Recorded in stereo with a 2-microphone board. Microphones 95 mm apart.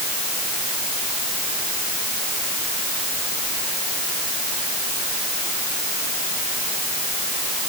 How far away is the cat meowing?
No cat meowing in this recording.